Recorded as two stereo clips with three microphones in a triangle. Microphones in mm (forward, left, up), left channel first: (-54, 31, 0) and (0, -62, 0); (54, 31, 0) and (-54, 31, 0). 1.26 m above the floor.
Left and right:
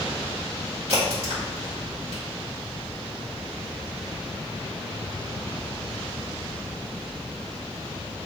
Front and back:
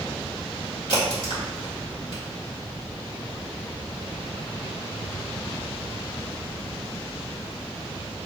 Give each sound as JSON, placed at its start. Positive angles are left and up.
{"t": 0.9, "sound": "a crack", "azimuth_deg": -40, "distance_m": 1.9}